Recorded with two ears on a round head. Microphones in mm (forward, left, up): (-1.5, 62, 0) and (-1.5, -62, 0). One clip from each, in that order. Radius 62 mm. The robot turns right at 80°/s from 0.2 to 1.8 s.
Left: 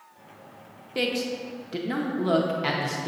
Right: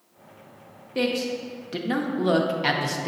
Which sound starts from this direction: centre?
A man speaking, at 0.9 s.